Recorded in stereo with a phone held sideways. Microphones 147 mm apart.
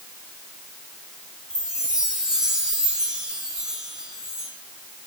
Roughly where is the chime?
Centre.